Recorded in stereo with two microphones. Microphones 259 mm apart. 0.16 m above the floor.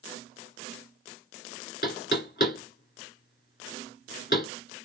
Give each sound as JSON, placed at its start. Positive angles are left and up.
{"t": 1.8, "sound": "knocking", "side_deg": 40, "distance_m": 1.7}